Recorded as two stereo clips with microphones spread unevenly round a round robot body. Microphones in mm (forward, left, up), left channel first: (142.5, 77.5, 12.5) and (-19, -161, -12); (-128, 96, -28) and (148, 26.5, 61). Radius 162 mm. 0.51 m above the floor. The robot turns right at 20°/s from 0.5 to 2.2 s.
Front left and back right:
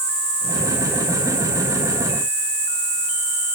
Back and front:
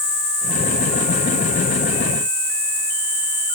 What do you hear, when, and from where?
0.0 s an insect: 145° right, 4.5 m; by 3.5 s 115° right, 4.5 m